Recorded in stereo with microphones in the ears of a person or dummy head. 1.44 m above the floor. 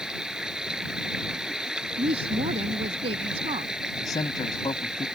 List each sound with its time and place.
0.0 s running water: 5° right (ahead or behind)
2.0 s a woman speaking: 35° right (ahead or behind)
4.0 s a man speaking: 15° left (ahead or behind)